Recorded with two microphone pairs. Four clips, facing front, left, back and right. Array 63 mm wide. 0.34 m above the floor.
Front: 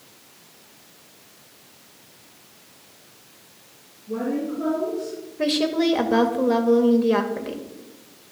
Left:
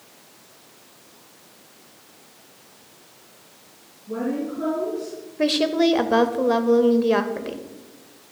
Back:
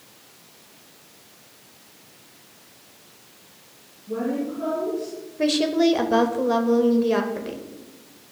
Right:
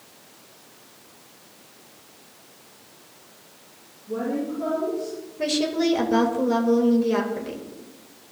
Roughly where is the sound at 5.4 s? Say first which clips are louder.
Left 4 dB, back 2 dB; left.